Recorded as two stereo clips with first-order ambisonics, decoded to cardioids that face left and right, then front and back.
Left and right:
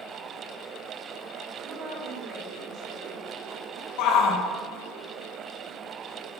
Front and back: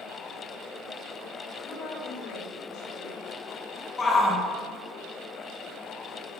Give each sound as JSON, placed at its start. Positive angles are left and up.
{"t": 1.6, "sound": "a woman speaking", "azimuth_deg": -45, "distance_m": 3.0}
{"t": 4.0, "sound": "a shout", "azimuth_deg": 70, "distance_m": 1.3}